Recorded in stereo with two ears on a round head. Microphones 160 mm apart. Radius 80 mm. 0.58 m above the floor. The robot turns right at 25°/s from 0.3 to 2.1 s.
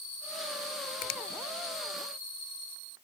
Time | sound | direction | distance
1.0 | a finger snap | 50° left (ahead or behind) | ?